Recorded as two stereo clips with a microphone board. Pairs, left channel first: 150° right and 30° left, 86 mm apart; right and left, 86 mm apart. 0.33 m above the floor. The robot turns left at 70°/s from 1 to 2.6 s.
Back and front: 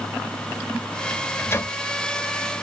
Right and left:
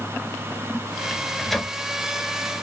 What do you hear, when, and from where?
1.1 s a microwave: 150° right, 0.7 m; by 1.8 s 165° left, 0.7 m